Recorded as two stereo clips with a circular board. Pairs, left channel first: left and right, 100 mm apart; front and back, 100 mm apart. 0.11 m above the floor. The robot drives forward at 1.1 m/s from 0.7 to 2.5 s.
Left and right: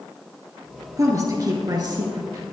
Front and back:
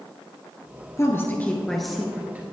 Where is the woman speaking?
45° right, 1.9 m; by 2.4 s 120° right, 1.8 m.